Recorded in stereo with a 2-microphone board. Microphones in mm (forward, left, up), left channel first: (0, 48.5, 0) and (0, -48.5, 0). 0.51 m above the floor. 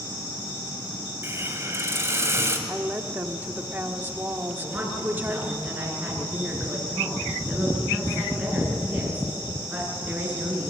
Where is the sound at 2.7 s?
20° right (ahead or behind), 1.3 m.